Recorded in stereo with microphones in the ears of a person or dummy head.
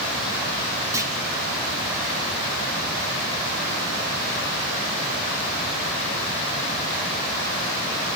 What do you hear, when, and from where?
0.9 s a clunk: 20° right (ahead or behind), 2.5 m